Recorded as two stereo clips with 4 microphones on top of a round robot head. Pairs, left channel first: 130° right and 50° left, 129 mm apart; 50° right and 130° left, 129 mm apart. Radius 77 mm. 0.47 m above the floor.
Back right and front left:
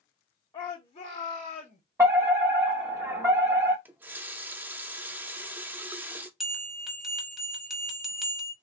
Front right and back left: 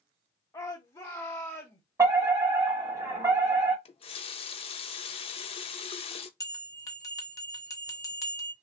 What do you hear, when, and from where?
0.5 s a shout: 105° right, 0.9 m; by 1.8 s 115° right, 1.4 m
2.0 s a fire alarm: 95° left, 1.9 m
3.9 s a running tap: 25° right, 0.6 m
6.4 s a bell: 35° right, 1.4 m